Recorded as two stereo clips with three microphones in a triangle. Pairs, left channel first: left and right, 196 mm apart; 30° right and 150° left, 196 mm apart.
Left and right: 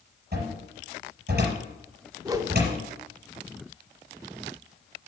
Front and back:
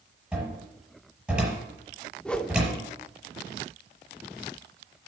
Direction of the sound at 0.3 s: 125° right.